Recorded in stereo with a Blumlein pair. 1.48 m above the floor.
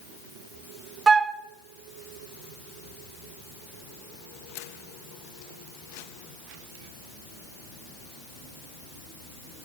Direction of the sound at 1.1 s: 20° right.